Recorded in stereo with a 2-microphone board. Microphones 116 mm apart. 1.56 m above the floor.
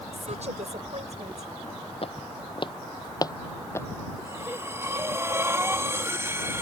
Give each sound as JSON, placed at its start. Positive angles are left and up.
{"t": 0.1, "sound": "a woman speaking", "side_deg": -70}
{"t": 2.0, "sound": "footsteps", "side_deg": 55}
{"t": 4.2, "sound": "breathing", "side_deg": -25}